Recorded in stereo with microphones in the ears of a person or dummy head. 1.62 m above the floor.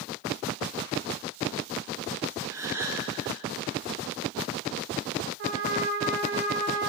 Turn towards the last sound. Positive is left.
turn(degrees=-55)  # may be behind; listen again after turning